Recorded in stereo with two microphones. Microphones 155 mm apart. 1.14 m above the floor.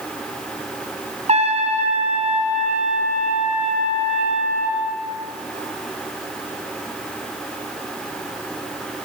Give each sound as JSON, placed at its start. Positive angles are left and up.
{"t": 1.3, "sound": "a trumpet", "side_deg": -45, "distance_m": 5.0}